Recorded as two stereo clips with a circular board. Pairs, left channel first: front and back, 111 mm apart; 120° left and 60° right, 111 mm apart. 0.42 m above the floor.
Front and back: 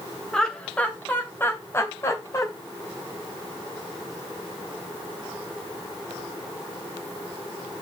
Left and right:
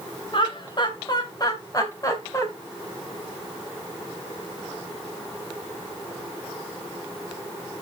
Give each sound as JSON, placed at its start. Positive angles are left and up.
{"t": 0.3, "sound": "laughter", "azimuth_deg": 85, "distance_m": 2.5}